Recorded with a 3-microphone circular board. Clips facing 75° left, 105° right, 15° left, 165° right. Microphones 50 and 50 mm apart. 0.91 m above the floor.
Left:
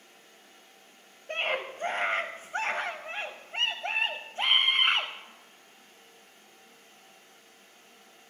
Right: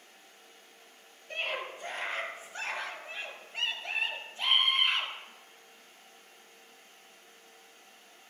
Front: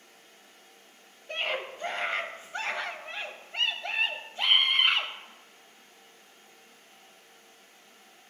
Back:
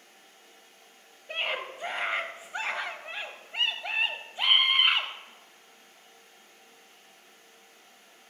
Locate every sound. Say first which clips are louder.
1.3 s a scream: left 5 dB, even; 120° left, 1.0 m